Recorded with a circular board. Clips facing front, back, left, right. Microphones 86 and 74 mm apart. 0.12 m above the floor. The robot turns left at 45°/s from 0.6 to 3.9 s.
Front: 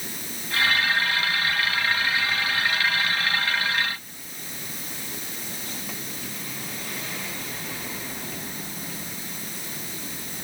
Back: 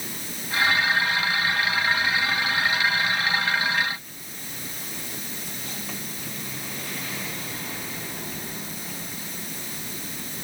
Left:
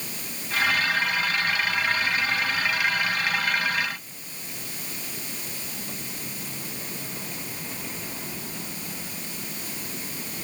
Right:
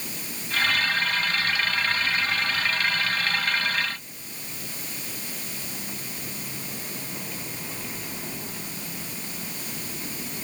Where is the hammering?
I don't hear hammering.